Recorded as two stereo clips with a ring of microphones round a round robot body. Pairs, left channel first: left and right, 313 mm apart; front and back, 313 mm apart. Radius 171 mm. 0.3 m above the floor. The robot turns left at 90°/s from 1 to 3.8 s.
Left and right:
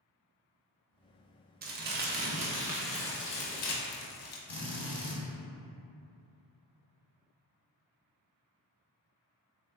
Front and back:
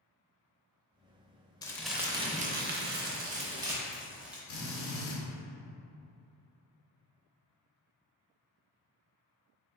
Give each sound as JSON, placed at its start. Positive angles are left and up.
{"t": 1.6, "sound": "crumpling", "azimuth_deg": -65, "distance_m": 0.5}
{"t": 4.5, "sound": "a drill", "azimuth_deg": 10, "distance_m": 1.3}